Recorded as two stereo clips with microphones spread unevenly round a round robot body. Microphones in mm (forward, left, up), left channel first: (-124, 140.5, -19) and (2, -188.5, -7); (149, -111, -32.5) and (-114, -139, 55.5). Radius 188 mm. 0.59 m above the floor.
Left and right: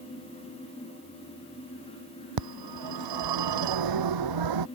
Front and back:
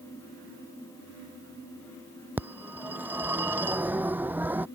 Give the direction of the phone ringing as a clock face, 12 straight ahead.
3 o'clock.